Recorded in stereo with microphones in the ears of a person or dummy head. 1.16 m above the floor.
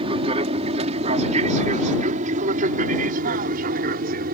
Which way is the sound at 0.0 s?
35° right (ahead or behind).